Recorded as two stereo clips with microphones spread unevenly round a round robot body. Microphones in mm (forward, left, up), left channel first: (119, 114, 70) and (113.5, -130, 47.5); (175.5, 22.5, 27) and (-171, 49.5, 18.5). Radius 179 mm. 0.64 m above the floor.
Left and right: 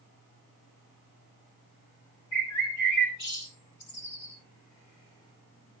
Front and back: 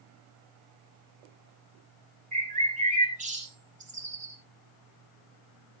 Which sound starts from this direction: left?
A bird, at 2.3 s.